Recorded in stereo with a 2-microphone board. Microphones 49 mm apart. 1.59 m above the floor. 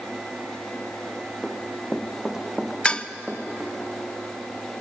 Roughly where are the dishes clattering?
Left.